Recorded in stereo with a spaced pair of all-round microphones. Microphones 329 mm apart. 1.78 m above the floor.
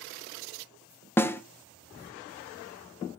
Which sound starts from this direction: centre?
A snare drum, at 1.2 s.